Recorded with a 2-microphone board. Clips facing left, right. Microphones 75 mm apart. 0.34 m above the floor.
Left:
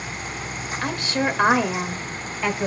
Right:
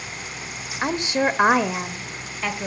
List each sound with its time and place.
0.8 s a woman speaking: 30° right (ahead or behind), 1.3 m; by 2.7 s 15° left (ahead or behind), 1.7 m